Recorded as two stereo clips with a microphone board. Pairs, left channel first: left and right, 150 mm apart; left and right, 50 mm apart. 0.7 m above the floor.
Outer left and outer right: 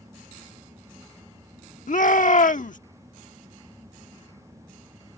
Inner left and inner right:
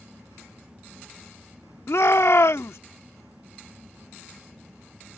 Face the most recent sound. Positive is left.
turn(degrees=65)  # may be behind; listen again after turning